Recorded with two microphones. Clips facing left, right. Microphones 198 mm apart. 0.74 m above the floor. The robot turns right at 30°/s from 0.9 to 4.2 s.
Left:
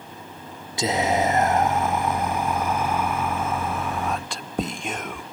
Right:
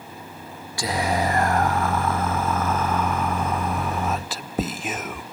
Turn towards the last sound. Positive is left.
turn(degrees=0)  # may be behind; listen again after turning